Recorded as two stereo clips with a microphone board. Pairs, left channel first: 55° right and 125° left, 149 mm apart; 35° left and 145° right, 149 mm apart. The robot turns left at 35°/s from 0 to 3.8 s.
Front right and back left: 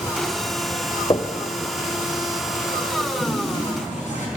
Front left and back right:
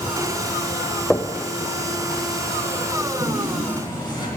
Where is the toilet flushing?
Straight ahead, 3.5 m; by 4.3 s 25° right, 3.5 m.